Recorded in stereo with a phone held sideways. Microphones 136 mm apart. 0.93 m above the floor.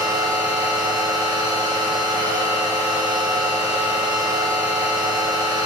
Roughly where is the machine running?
Right.